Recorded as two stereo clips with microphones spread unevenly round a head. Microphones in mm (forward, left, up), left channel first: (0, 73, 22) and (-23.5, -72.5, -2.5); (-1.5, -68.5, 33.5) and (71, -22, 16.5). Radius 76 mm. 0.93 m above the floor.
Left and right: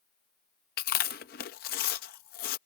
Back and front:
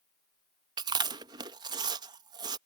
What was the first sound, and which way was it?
Chewing, 55° left.